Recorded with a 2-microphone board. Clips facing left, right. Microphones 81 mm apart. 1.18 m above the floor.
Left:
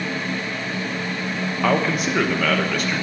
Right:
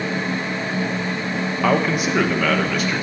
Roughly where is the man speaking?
Centre.